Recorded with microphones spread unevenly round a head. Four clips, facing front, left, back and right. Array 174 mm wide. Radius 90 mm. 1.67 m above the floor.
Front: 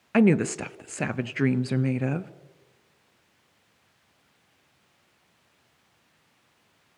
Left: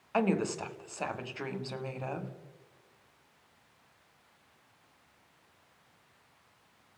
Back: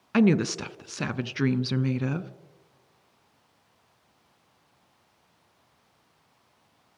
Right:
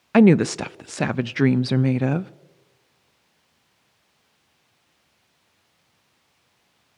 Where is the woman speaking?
90° right, 0.7 m.